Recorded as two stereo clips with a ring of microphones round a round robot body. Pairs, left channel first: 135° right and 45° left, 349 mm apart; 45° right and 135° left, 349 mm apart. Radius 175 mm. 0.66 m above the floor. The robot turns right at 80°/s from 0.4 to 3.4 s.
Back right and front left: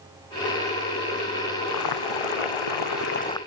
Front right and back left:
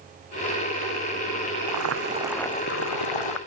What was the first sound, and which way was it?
Boiling, 170° left.